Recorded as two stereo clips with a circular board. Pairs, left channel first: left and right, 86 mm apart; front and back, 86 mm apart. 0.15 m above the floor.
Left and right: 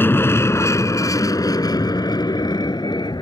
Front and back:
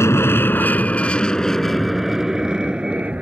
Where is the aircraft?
40° left; by 3.2 s 110° left.